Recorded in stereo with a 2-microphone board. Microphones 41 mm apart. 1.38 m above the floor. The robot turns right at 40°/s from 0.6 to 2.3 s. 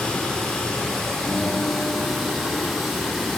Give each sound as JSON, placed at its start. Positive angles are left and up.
{"t": 0.0, "sound": "running water", "side_deg": 15, "distance_m": 1.0}
{"t": 1.3, "sound": "a guitar", "azimuth_deg": 0, "distance_m": 2.5}